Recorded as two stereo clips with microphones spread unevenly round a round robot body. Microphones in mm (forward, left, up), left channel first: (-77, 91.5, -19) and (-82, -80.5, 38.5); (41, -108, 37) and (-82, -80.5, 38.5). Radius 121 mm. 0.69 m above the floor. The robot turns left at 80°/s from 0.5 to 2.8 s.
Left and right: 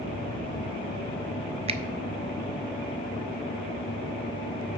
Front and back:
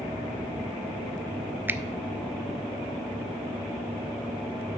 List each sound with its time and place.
1.7 s a finger snap: 145° right, 0.5 m; by 1.8 s 150° right, 0.5 m